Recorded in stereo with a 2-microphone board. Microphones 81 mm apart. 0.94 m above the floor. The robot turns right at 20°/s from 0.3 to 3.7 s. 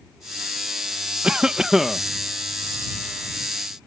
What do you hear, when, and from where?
1.2 s a cough: 10° right (ahead or behind); by 2.0 s centre (ahead or behind)